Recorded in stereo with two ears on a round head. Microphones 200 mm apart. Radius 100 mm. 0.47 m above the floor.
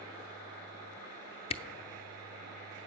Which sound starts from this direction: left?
A camera shutter, at 1.5 s.